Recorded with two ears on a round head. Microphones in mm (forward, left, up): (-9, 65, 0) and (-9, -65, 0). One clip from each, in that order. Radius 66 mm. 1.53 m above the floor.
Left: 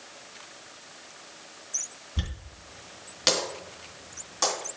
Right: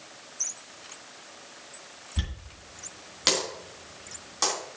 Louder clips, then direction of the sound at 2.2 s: Even; 5° right (ahead or behind).